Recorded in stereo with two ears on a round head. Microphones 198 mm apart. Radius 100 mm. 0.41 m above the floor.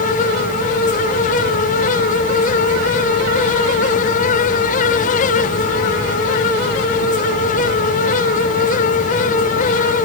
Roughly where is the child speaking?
I don't hear a child speaking.